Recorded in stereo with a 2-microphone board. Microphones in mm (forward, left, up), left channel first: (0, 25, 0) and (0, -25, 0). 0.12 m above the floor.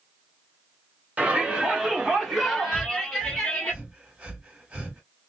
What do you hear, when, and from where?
1.2 s a shout: 25° right (ahead or behind), 1.4 m; by 3.7 s 20° left (ahead or behind), 1.6 m
2.7 s breathing: 20° right (ahead or behind), 1.9 m